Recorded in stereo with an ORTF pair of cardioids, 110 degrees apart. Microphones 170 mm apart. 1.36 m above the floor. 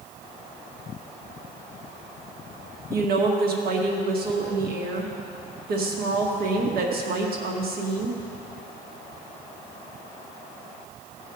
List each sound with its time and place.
2.9 s a woman speaking: 65° right, 1.8 m